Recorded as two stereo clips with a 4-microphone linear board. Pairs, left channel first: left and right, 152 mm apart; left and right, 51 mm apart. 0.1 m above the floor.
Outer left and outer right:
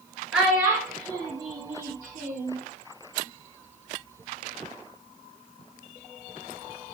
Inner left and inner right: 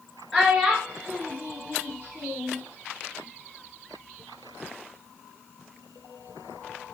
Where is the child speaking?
Centre (ahead or behind), 0.9 m; by 2.6 s 55° right (ahead or behind), 1.3 m.